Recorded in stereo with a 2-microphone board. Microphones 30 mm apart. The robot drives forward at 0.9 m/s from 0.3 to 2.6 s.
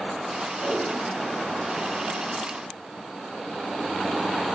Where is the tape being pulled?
55° right (ahead or behind), 7.5 m; by 3.1 s 45° right (ahead or behind), 8.5 m.